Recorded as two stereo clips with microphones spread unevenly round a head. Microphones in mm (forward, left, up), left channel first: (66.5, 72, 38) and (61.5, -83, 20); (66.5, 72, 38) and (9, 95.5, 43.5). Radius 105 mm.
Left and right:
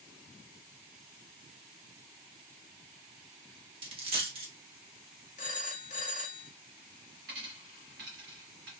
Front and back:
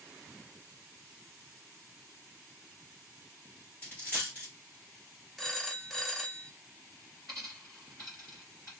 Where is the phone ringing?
70° left, 0.6 m.